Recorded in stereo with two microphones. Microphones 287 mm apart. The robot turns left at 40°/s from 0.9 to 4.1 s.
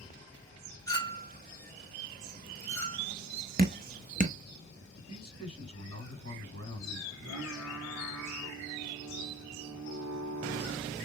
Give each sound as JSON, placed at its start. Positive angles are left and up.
{"t": 0.9, "sound": "a clink", "side_deg": 10, "distance_m": 1.6}
{"t": 3.6, "sound": "dripping", "side_deg": -30, "distance_m": 0.6}
{"t": 5.0, "sound": "a man speaking", "side_deg": -50, "distance_m": 2.0}
{"t": 7.1, "sound": "singing", "side_deg": -60, "distance_m": 1.6}